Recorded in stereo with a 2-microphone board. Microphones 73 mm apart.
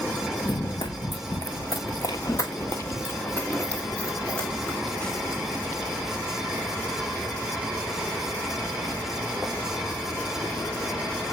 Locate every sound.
0.4 s running footsteps: 80° left, 1.3 m; by 5.7 s 10° left (ahead or behind), 3.5 m